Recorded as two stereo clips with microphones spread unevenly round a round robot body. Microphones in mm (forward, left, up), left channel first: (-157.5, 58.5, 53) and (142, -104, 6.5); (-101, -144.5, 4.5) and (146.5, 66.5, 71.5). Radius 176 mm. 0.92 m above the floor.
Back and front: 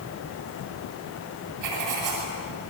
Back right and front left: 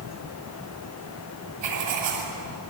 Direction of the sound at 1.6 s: 10° left.